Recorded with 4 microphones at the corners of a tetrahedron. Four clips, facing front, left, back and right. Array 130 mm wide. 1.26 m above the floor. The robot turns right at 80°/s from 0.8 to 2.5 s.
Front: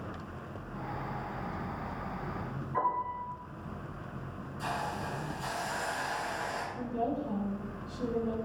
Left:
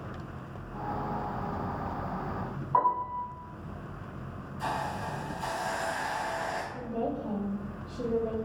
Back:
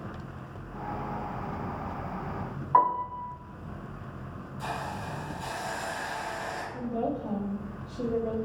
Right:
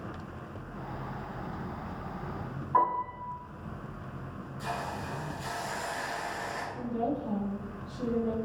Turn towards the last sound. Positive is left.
turn(degrees=150)